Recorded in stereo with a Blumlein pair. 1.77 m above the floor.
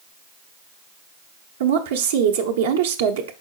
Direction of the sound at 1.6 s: 60° right.